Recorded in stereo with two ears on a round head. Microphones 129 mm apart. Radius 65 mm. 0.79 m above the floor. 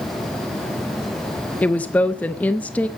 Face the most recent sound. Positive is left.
turn(degrees=10)  # may be behind; listen again after turning